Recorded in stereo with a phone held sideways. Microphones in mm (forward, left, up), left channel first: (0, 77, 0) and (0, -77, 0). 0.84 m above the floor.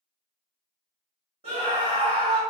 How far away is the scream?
About 1.3 m.